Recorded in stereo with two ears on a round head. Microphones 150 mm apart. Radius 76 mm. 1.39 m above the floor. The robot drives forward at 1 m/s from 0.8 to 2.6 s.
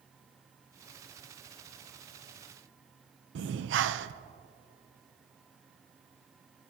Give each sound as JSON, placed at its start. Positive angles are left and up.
{"t": 3.4, "sound": "breathing", "side_deg": -75, "distance_m": 0.7}